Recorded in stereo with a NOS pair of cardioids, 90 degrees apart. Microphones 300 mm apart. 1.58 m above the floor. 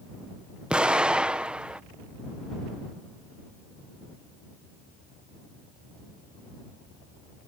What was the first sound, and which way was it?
An explosion, 5° right.